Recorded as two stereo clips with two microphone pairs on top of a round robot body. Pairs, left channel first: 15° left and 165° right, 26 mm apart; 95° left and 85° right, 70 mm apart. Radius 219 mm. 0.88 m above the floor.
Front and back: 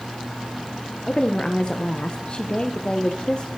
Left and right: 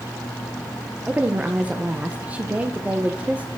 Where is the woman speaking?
25° right, 0.9 m.